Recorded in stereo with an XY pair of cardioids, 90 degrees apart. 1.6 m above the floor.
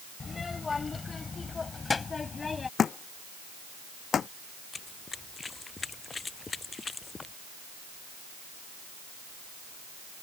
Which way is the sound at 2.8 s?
55° left.